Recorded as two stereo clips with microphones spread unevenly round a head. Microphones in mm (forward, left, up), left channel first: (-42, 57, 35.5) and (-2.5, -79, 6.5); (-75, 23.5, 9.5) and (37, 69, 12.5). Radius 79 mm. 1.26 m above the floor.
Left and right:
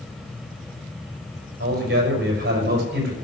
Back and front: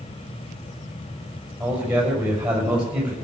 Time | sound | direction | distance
1.6 | a man speaking | 60° right | 6.5 m